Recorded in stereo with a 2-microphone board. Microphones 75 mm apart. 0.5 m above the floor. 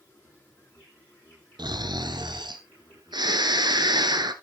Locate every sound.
0.0 s an insect: 25° left (ahead or behind), 9 m
1.6 s snoring: 75° right (ahead or behind), 1.3 m